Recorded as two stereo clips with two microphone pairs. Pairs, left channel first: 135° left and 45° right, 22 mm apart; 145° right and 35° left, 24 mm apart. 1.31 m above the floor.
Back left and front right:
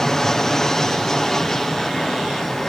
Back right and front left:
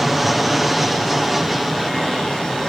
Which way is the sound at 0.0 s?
105° left.